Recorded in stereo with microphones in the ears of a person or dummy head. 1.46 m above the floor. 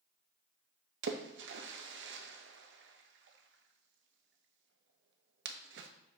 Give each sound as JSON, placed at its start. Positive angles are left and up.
{"t": 1.0, "sound": "a splash", "side_deg": -60, "distance_m": 0.6}